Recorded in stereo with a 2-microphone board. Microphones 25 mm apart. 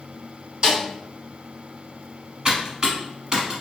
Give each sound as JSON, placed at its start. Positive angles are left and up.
{"t": 0.6, "sound": "a snare drum", "side_deg": -35, "distance_m": 1.9}
{"t": 2.5, "sound": "typing on a keyboard", "side_deg": -30, "distance_m": 1.1}